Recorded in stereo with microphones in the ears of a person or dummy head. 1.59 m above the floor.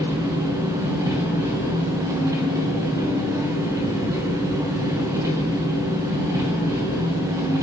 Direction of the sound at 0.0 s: 15° right (ahead or behind).